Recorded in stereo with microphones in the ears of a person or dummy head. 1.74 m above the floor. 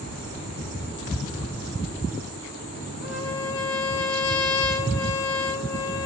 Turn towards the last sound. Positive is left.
turn(degrees=75)  # may be behind; listen again after turning